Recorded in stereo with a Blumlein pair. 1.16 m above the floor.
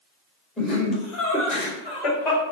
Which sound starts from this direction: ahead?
Laughter, at 0.6 s.